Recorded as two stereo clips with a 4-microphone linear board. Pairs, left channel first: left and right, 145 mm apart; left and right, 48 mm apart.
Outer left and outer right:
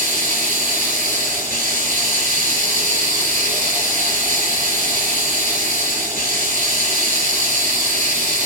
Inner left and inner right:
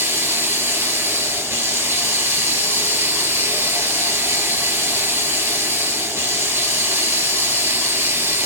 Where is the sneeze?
I don't hear a sneeze.